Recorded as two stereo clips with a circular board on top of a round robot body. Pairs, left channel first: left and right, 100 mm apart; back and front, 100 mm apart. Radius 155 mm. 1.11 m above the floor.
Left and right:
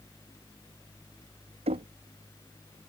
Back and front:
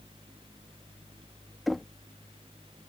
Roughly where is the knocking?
Right.